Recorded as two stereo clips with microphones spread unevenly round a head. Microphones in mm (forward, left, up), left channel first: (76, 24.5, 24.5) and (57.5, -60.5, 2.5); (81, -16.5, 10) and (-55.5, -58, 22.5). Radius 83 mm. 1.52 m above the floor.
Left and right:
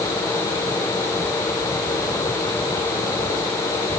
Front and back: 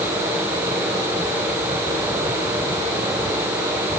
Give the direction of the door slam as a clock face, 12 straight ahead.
I don't hear a door slam.